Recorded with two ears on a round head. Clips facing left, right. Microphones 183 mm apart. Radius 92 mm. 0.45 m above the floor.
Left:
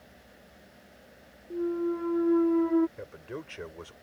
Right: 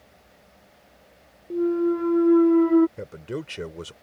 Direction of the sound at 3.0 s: 45° right (ahead or behind).